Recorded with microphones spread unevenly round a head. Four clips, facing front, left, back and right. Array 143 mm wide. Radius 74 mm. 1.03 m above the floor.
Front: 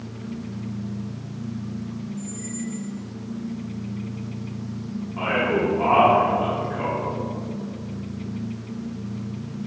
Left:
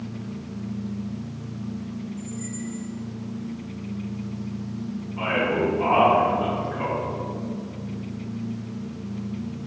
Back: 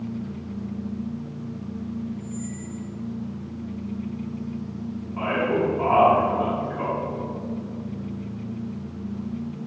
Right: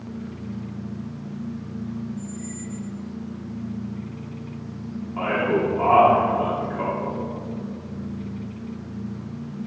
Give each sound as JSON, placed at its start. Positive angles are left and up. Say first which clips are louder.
{"t": 2.2, "sound": "a squeak", "louder": "even, front 1 dB", "azimuth_deg": -125, "distance_m": 0.9}
{"t": 5.2, "sound": "a man speaking", "louder": "right 2 dB, front 1 dB", "azimuth_deg": -80, "distance_m": 2.5}